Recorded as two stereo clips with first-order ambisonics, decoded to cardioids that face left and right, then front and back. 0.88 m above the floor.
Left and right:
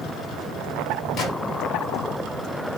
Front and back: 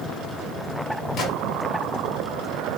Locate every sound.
1.2 s a gunshot: 50° left, 1.2 m